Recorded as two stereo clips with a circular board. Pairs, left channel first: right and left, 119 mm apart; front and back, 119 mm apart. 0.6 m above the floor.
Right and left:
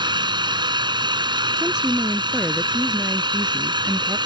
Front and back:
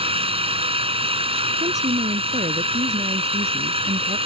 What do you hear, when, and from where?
0.0 s an engine running: 140° left
1.6 s a woman speaking: 175° left